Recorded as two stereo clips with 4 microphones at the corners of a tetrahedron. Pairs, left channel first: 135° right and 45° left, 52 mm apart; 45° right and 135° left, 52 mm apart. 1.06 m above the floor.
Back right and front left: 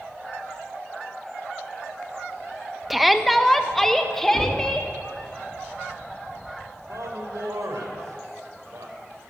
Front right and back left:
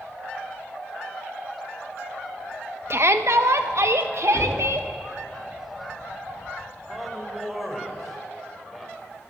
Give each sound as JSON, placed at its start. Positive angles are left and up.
{"t": 2.9, "sound": "a shout", "azimuth_deg": 130, "distance_m": 1.0}
{"t": 4.3, "sound": "knocking", "azimuth_deg": -150, "distance_m": 2.0}
{"t": 6.9, "sound": "a man speaking", "azimuth_deg": 45, "distance_m": 5.0}